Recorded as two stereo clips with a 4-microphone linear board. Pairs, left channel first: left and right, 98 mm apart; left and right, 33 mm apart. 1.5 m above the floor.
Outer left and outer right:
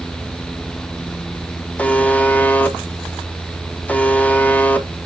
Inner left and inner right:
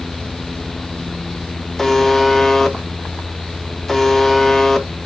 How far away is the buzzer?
About 1.1 m.